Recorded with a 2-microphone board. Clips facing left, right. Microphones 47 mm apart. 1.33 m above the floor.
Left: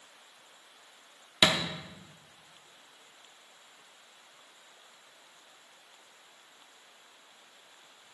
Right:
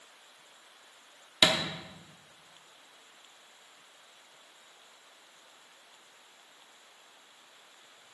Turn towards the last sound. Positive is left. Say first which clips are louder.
# even
turn(degrees=10)  # may be behind; listen again after turning